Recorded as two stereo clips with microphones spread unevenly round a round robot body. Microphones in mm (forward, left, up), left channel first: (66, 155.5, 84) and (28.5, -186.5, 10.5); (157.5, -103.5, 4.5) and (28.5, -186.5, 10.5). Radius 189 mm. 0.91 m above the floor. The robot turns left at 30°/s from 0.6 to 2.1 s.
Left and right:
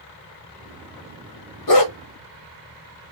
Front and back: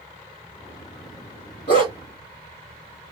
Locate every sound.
1.7 s a dog barking: 90° left, 0.9 m; by 1.9 s 85° left, 0.9 m